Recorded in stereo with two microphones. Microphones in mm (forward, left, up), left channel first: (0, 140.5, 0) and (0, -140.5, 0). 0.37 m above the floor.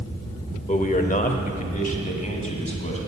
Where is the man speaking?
25° left (ahead or behind), 0.8 m.